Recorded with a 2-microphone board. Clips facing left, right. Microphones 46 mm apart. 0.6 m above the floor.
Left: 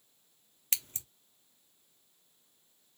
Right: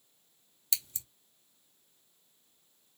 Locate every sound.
0.7 s scissors: 40° left (ahead or behind), 0.8 m